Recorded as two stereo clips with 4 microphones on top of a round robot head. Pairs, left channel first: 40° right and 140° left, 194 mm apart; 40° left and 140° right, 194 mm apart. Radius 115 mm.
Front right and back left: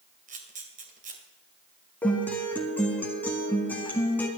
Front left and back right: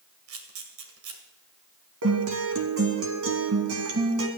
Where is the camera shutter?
165° right, 2 m.